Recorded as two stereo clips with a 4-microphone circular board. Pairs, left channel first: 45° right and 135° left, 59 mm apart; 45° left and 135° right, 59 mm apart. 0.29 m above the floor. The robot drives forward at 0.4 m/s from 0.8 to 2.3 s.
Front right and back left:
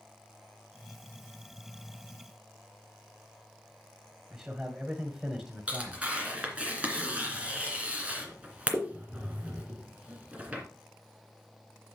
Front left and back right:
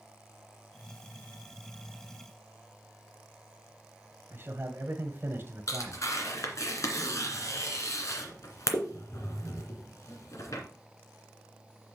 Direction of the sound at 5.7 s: 70° left.